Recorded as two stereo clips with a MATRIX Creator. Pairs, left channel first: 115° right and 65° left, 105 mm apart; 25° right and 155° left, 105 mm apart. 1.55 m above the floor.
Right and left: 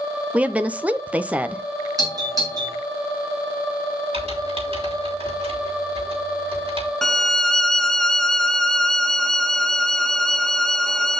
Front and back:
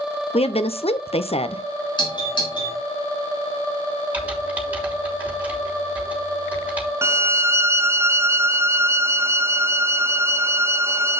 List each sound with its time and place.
0.3 s a woman speaking: 10° right, 0.7 m
2.0 s a doorbell: 15° left, 4.5 m
4.1 s typing on a keyboard: 85° left, 3 m
7.0 s a violin: 165° left, 0.6 m